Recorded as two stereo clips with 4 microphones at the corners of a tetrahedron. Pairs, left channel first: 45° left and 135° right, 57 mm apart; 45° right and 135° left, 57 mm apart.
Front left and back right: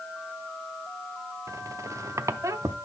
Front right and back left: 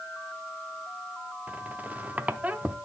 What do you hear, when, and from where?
1.5 s a squeak: 165° right, 0.5 m